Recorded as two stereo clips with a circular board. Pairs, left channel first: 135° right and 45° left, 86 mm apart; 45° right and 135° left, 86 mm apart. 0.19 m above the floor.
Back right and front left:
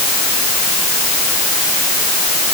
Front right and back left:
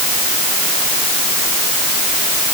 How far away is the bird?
I don't hear a bird.